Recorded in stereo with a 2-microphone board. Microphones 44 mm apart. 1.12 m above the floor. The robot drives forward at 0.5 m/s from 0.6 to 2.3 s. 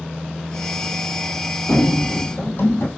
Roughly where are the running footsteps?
Left.